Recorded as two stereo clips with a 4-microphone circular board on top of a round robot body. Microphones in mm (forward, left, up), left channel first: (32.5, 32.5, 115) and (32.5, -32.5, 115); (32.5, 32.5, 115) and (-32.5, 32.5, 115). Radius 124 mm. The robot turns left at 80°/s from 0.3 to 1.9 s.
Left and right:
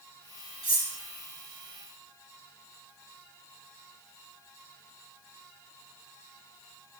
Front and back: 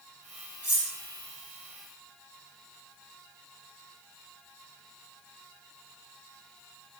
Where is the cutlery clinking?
115° right, 2.5 m; by 0.9 s 135° right, 2.5 m.